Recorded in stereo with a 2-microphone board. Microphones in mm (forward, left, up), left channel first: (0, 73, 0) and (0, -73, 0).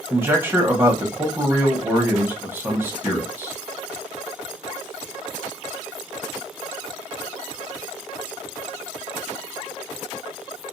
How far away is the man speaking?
About 0.9 m.